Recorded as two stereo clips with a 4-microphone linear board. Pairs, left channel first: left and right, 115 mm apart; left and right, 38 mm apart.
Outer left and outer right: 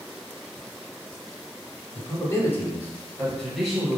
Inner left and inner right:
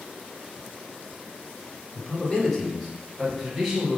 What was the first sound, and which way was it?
A man speaking, 30° left (ahead or behind).